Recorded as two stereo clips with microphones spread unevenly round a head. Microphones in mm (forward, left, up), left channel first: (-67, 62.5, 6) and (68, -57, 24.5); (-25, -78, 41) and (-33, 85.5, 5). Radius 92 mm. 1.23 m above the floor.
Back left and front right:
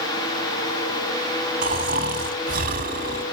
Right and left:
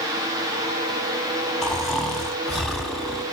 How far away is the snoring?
About 1.8 m.